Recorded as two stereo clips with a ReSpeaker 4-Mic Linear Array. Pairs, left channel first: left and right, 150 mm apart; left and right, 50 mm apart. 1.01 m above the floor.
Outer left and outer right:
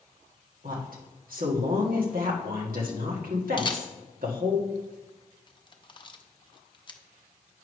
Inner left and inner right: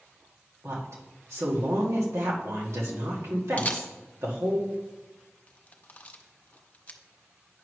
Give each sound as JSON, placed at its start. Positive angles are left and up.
{"t": 0.6, "sound": "a woman speaking", "side_deg": -75, "distance_m": 1.7}
{"t": 3.6, "sound": "a camera shutter", "side_deg": 35, "distance_m": 0.7}